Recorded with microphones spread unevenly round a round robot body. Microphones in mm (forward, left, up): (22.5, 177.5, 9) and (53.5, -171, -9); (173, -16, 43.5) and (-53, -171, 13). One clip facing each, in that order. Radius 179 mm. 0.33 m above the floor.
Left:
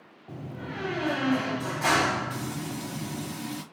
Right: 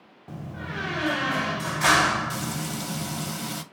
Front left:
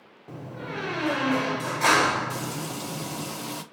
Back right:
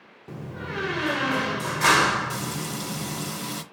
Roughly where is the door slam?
Right.